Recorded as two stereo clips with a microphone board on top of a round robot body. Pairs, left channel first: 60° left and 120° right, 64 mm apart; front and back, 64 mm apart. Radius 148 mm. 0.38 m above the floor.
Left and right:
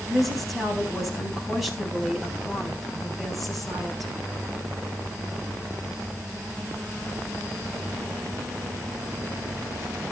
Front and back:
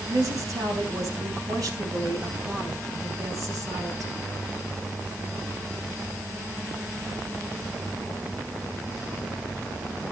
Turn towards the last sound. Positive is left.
turn(degrees=150)